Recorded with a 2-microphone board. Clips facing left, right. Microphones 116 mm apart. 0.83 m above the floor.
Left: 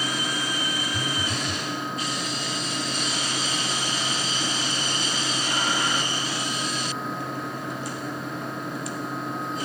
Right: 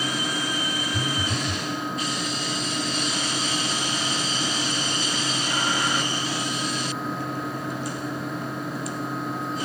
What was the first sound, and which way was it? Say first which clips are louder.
A phone buzzing: right 2 dB; 5° right (ahead or behind).